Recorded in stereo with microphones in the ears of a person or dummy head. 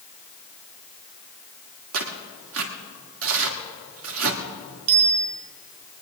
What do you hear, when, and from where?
1.9 s tearing paper: 70° right (ahead or behind), 1.9 m
4.9 s a bicycle bell: 60° right (ahead or behind), 6 m